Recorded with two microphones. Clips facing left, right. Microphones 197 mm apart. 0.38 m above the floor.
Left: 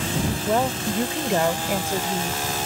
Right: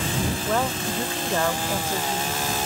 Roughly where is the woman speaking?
Left.